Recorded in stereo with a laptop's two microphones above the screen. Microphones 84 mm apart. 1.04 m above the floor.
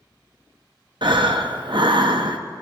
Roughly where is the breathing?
Right.